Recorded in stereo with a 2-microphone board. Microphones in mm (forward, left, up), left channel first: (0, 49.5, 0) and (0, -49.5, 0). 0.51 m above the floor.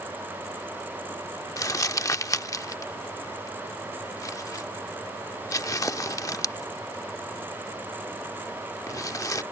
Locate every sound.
1.6 s crumpling: 35° left (ahead or behind)